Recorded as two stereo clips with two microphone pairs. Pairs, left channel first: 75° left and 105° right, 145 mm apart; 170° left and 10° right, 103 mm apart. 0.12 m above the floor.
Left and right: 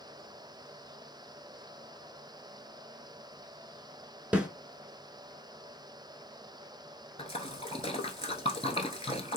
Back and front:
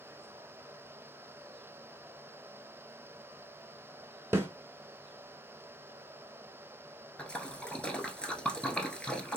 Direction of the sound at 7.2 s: 90° left.